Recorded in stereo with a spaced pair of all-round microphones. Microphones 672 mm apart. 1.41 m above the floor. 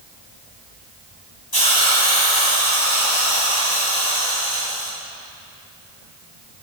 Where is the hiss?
30° left (ahead or behind), 2.5 m.